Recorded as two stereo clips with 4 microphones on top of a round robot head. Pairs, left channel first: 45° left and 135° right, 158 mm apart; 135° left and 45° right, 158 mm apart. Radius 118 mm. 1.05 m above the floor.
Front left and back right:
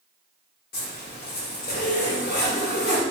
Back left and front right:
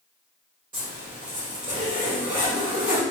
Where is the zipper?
15° left, 0.8 m.